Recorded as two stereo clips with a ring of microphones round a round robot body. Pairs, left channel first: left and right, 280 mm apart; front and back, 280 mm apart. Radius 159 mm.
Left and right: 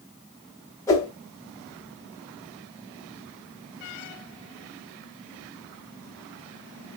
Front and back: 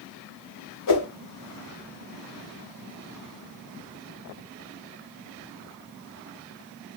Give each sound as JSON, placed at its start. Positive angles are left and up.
{"t": 0.9, "sound": "a whoosh", "azimuth_deg": 10, "distance_m": 2.5}